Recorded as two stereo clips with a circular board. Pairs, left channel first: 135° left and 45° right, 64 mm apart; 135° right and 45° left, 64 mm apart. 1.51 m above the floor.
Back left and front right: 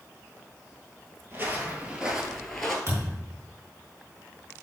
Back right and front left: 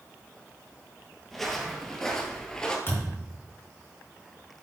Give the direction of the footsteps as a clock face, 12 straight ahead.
1 o'clock.